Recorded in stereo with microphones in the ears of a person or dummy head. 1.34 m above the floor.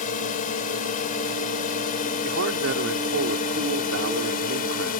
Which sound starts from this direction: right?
A man speaking, at 2.2 s.